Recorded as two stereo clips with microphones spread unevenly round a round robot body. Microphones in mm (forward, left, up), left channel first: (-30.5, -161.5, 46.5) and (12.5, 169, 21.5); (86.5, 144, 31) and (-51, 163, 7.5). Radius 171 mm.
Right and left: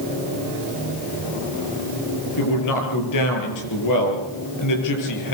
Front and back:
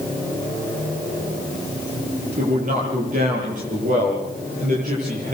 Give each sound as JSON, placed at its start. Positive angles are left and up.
{"t": 2.4, "sound": "a man speaking", "azimuth_deg": -130, "distance_m": 9.0}